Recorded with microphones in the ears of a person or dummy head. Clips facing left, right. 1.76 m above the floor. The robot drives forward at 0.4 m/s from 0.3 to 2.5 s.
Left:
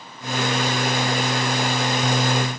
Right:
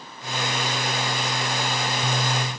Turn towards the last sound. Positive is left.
No sound to turn to.